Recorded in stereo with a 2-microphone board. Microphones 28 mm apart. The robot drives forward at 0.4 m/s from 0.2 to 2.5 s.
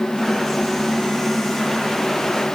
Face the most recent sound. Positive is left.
No sound to turn to.